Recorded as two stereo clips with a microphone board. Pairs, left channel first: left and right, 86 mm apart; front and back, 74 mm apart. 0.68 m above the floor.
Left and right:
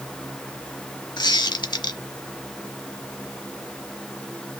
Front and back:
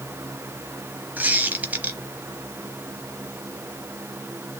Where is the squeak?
115° left, 0.9 m.